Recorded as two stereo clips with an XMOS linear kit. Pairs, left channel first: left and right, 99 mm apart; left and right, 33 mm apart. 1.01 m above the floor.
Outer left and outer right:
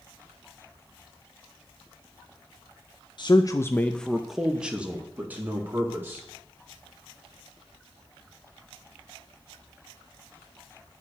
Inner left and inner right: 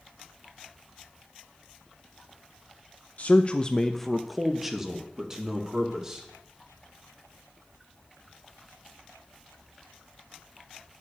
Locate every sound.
3.2 s a man speaking: 50° left (ahead or behind), 0.6 m; by 6.3 s 20° right (ahead or behind), 2.5 m